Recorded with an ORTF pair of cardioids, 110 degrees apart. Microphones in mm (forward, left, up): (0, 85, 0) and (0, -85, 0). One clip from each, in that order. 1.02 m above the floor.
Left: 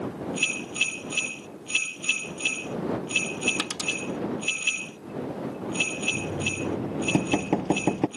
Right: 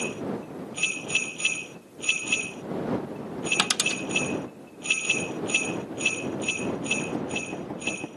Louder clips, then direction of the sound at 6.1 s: Even; 70° left.